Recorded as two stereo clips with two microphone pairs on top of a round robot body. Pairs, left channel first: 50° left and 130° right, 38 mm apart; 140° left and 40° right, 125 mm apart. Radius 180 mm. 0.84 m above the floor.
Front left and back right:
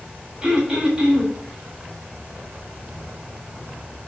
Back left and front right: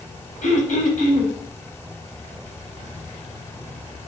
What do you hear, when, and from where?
0.4 s throat clearing: 155° left, 3.5 m